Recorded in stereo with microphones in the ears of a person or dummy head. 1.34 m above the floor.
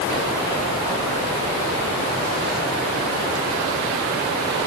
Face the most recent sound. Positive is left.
No sound to turn to.